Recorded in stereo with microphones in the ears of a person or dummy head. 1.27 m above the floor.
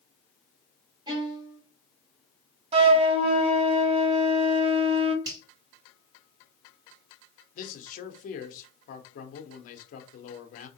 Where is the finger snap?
25° right (ahead or behind), 1.9 m.